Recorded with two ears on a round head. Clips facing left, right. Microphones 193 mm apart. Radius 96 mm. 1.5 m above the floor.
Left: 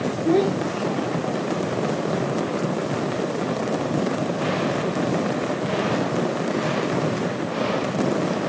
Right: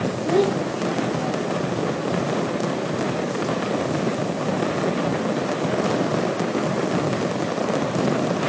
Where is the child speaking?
40° left (ahead or behind), 3.5 m; by 1.8 s 45° left (ahead or behind), 2.5 m.